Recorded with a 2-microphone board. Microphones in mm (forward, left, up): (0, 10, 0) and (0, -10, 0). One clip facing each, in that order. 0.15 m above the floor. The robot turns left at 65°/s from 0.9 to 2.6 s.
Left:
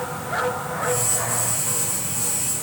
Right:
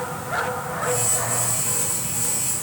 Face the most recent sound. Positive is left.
No sound to turn to.